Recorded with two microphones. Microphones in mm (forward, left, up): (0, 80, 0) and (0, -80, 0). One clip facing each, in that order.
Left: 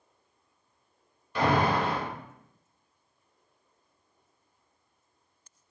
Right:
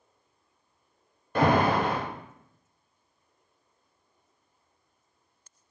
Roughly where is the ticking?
I don't hear ticking.